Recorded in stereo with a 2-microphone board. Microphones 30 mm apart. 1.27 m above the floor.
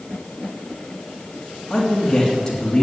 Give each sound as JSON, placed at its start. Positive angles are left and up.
{"t": 1.7, "sound": "a man speaking", "side_deg": 15, "distance_m": 3.0}